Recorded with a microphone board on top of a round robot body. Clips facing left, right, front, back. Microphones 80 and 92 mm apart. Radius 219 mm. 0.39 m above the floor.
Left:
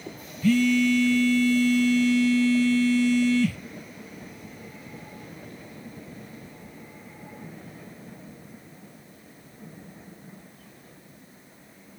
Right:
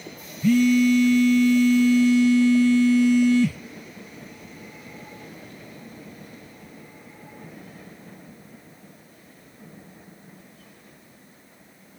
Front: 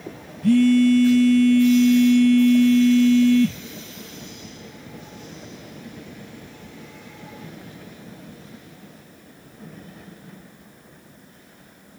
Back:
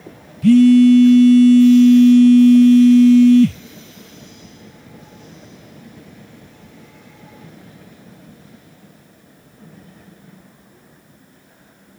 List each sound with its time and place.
0.4 s a phone buzzing: 165° right, 0.6 m